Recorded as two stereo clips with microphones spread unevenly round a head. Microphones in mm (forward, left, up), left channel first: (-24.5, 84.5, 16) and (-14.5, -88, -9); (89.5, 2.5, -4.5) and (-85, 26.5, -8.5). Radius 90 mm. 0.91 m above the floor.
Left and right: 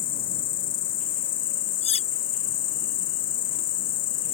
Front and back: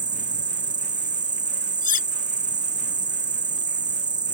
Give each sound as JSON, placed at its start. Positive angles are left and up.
{"t": 0.0, "sound": "an insect", "azimuth_deg": 105}
{"t": 1.8, "sound": "cutlery clinking", "azimuth_deg": 35}